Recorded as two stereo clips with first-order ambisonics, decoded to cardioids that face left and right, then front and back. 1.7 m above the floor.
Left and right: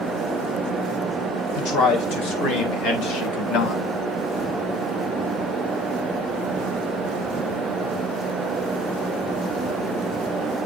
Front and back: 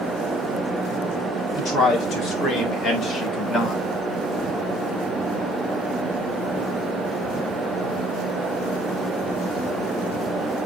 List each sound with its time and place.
1.6 s a man speaking: 60° left, 5.5 m; by 3.8 s 75° left, 2 m